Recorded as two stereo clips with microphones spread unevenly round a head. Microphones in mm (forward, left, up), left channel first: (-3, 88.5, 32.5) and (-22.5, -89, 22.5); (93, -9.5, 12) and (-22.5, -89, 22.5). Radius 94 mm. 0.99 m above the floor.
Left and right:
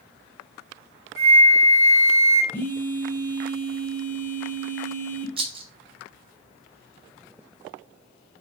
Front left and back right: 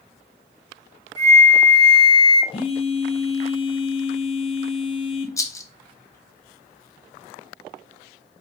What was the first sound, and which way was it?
A flute, 55° left.